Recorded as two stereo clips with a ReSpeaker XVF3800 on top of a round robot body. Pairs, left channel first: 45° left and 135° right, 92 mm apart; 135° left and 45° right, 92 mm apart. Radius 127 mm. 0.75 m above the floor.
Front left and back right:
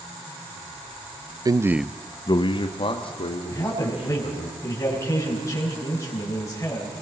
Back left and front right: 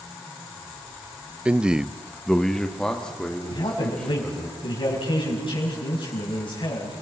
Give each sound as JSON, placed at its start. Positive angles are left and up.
{"t": 1.4, "sound": "a man speaking", "azimuth_deg": -120, "distance_m": 0.8}
{"t": 3.5, "sound": "a man speaking", "azimuth_deg": 105, "distance_m": 5.5}